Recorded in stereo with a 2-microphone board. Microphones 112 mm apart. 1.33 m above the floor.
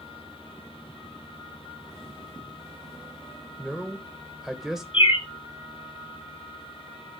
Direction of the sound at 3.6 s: 5° right (ahead or behind).